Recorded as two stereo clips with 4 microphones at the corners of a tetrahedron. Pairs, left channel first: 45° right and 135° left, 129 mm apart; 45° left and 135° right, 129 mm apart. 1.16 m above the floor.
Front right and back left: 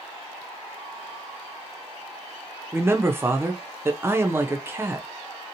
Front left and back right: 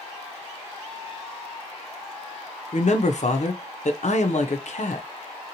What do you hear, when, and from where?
2.7 s a man speaking: 65° left, 0.5 m